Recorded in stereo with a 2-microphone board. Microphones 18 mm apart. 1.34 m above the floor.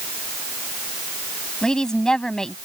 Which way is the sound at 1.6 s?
40° left (ahead or behind).